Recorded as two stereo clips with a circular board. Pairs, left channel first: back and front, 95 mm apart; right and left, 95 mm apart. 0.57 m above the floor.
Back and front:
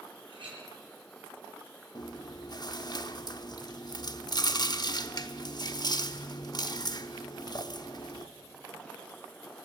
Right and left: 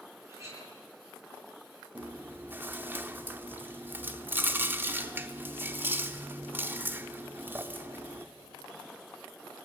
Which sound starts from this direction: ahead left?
A clink, at 0.3 s.